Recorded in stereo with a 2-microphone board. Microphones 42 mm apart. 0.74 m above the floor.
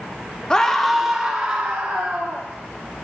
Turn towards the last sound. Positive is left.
turn(degrees=-35)  # may be behind; listen again after turning